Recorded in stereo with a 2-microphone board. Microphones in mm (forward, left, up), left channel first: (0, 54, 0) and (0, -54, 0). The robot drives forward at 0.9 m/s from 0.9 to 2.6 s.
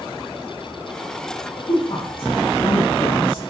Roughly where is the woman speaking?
Left.